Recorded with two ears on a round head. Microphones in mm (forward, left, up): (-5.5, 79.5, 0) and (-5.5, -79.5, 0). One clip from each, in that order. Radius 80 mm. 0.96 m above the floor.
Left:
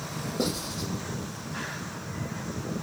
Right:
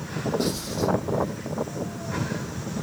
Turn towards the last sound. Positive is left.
turn(degrees=10)  # may be behind; listen again after turning